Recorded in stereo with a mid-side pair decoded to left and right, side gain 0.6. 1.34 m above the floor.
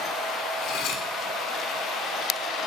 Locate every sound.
0.6 s cutlery clinking: 60° left, 2.5 m